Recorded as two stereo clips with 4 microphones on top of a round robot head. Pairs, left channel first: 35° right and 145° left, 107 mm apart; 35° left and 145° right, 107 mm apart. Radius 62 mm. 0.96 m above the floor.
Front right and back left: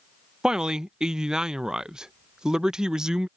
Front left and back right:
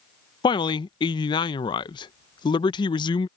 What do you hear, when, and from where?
0.4 s a man speaking: 60° left